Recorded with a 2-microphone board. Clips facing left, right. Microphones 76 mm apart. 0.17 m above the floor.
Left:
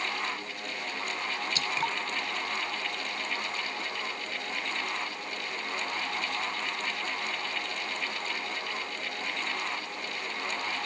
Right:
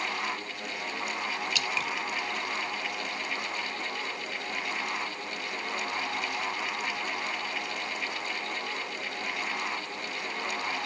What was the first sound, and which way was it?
Dripping, 35° left (ahead or behind).